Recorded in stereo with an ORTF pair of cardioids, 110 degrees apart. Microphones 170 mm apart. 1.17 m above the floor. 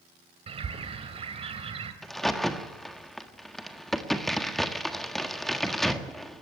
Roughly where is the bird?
Ahead right.